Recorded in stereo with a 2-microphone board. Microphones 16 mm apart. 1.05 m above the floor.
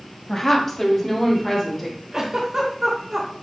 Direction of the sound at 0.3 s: 25° left (ahead or behind).